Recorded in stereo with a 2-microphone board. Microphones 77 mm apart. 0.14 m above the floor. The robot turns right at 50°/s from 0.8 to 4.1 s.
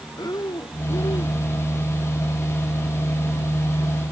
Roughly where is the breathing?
Left.